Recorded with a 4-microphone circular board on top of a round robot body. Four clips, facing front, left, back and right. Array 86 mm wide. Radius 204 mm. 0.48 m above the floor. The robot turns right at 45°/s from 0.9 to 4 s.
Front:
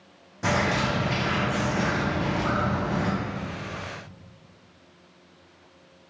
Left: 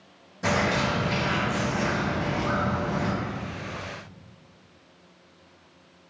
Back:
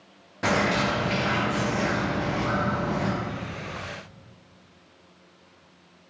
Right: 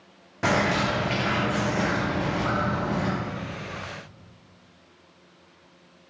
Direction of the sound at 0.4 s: 115° right.